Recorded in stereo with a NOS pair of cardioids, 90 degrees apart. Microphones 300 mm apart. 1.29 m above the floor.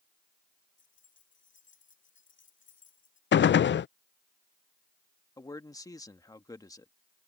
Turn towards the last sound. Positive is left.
turn(degrees=10)